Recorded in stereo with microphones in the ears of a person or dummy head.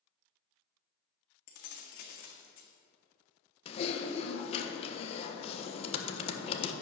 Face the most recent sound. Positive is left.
turn(degrees=35)  # may be behind; listen again after turning